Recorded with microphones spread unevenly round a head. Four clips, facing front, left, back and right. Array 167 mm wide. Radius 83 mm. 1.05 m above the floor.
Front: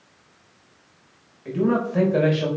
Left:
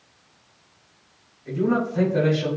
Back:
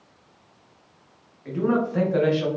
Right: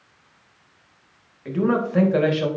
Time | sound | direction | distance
1.4 | a man speaking | 65° right | 2.5 m